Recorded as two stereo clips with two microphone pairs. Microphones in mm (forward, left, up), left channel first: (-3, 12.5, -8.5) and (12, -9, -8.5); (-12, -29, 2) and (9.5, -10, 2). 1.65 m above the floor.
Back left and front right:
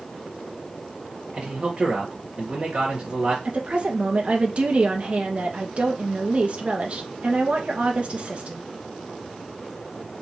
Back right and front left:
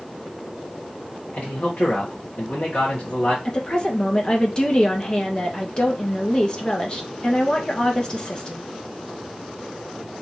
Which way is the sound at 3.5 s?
90° right.